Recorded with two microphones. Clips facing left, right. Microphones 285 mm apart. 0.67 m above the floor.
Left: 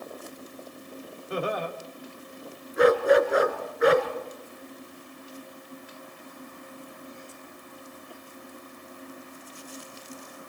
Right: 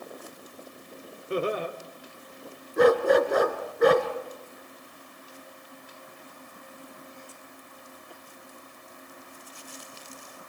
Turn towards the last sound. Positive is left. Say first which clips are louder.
# even
turn(degrees=-50)  # may be behind; listen again after turning